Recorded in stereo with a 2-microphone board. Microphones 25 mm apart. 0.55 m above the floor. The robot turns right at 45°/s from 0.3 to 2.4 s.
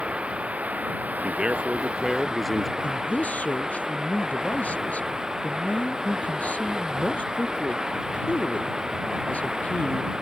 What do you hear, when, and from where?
0.0 s running water: 125° right; by 10.2 s 30° right
1.2 s a man speaking: 55° right; by 2.7 s straight ahead
2.8 s a man speaking: 85° left